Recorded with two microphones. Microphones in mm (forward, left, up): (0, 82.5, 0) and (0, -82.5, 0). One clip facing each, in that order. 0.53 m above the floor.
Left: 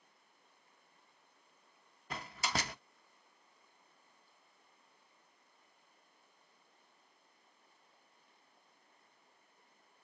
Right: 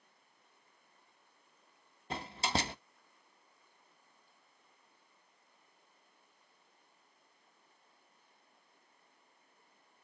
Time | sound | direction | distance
2.1 | a door slam | 25° right (ahead or behind) | 0.6 m